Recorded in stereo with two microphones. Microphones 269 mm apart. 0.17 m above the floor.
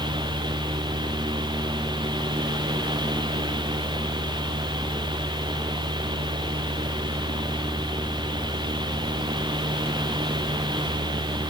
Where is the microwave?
No microwave in this recording.